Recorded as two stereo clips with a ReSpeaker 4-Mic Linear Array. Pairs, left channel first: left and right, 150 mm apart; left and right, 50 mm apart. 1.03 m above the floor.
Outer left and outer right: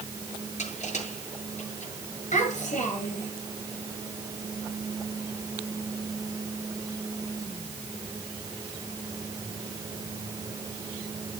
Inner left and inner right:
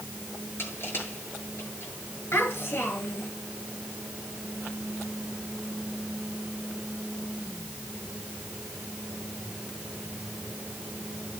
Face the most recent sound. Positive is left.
turn(degrees=55)  # may be behind; listen again after turning